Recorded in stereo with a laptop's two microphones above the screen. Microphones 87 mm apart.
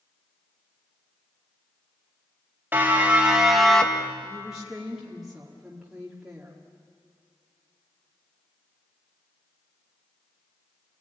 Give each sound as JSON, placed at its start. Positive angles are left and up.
{"t": 2.7, "sound": "a siren", "side_deg": -20, "distance_m": 2.5}
{"t": 4.2, "sound": "a woman speaking", "side_deg": -5, "distance_m": 2.0}